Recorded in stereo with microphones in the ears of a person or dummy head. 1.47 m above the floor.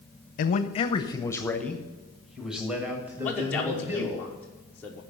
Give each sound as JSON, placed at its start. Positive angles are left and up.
{"t": 0.4, "sound": "a man speaking", "side_deg": 45, "distance_m": 0.7}
{"t": 3.2, "sound": "a man speaking", "side_deg": 10, "distance_m": 1.1}